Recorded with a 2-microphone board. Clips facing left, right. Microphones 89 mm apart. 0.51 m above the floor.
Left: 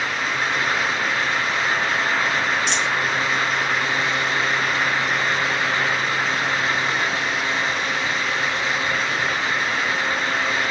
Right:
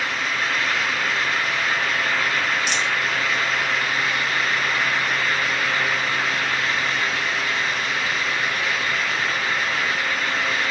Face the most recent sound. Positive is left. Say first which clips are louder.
# left 1 dB
turn(degrees=-15)  # may be behind; listen again after turning